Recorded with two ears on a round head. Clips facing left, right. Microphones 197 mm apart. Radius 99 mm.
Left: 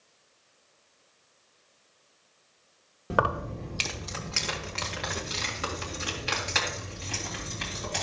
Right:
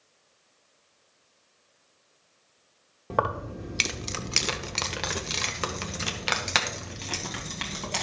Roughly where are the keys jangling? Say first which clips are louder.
Left 1 dB; centre.